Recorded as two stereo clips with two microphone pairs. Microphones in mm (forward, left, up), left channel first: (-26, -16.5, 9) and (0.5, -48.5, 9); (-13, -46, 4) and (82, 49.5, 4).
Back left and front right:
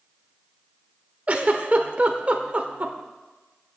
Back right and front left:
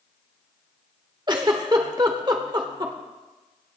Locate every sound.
1.3 s a giggle: 5° right, 1.4 m